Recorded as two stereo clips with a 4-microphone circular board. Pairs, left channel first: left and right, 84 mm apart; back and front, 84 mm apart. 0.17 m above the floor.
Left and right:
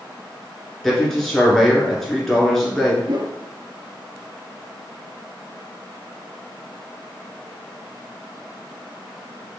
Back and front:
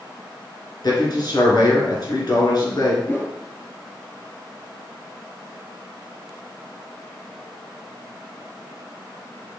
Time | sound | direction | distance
0.8 | a man speaking | 175° left | 1.9 m
3.1 | a whoosh | 120° right | 0.6 m